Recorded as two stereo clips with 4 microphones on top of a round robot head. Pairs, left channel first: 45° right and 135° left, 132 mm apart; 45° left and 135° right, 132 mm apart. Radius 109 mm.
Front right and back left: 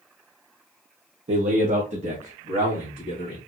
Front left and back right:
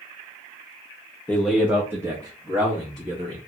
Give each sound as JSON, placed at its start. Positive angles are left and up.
{"t": 1.3, "sound": "a man speaking", "azimuth_deg": 120, "distance_m": 0.7}